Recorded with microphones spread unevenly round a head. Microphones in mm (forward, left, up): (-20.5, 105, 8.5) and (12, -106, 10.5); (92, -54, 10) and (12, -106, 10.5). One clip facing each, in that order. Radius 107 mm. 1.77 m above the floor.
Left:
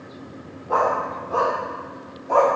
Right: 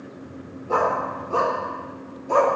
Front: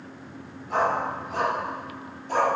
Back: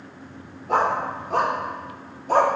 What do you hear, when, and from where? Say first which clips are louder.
0.7 s a dog barking: even, back 3 dB; 135° right, 3 m; by 2.6 s 125° right, 1.7 m